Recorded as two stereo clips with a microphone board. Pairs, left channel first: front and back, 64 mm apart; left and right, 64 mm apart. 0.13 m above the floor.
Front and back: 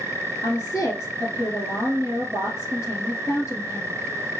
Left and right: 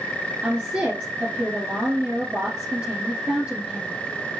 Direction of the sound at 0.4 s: 25° right.